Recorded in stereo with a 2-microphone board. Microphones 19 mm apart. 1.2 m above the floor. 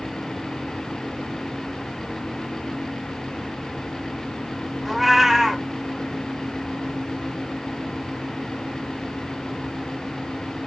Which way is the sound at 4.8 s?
10° right (ahead or behind).